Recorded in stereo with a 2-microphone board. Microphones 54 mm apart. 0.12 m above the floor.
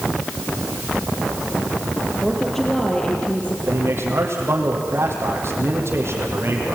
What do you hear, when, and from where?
2.2 s a woman speaking: centre (ahead or behind), 3.5 m; by 3.6 s 20° left (ahead or behind), 4 m
3.7 s a man speaking: 55° right (ahead or behind), 5 m